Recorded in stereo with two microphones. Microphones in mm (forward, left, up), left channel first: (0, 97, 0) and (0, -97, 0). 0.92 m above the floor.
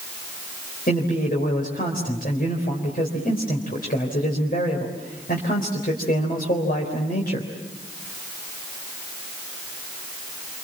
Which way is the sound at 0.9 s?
50° left (ahead or behind).